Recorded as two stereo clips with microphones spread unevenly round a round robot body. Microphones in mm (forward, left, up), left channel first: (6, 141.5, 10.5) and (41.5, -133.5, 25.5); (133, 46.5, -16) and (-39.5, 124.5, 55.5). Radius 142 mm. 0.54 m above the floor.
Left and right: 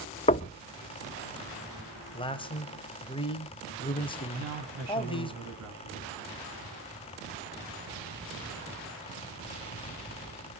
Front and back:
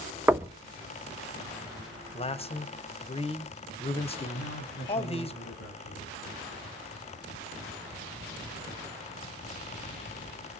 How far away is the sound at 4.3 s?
About 5 m.